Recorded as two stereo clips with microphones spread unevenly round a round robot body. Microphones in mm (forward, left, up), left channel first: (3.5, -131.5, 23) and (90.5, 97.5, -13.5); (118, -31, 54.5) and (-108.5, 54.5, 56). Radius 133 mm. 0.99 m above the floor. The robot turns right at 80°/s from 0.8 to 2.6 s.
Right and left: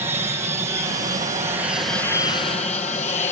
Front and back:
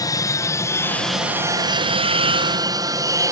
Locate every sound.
0.0 s an aircraft: 30° left; by 3.3 s 145° right